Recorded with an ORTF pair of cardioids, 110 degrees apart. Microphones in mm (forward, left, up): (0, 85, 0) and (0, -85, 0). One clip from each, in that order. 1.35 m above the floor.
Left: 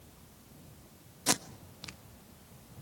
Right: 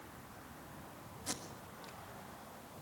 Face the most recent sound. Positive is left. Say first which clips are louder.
# left 13 dB
turn(degrees=65)